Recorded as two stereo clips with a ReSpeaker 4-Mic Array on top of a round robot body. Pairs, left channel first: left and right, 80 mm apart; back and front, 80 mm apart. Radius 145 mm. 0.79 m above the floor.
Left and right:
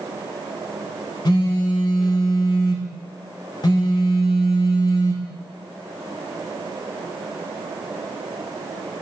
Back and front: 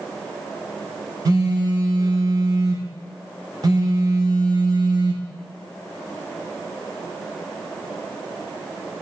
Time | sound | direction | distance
1.2 | a phone buzzing | 50° left | 0.9 m